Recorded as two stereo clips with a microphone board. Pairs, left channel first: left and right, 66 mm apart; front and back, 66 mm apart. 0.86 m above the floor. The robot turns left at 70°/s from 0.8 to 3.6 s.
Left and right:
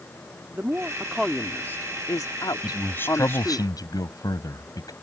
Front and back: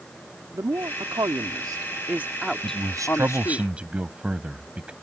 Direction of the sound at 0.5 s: 145° right.